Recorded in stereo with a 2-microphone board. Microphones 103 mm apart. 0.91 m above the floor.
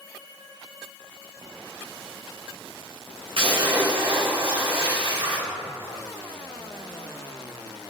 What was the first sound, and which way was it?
A splash, 75° right (ahead or behind).